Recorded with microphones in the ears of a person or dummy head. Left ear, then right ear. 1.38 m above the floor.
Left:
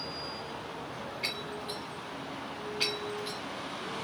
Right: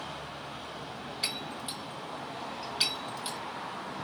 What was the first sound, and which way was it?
Breaking glass, 40° right (ahead or behind).